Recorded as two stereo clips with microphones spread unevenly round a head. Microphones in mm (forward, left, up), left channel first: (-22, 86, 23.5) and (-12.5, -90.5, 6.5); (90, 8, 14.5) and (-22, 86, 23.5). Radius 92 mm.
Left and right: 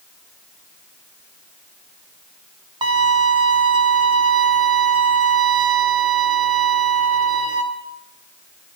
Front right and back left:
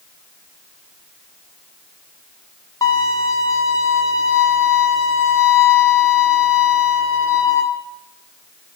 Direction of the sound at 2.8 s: 55° right.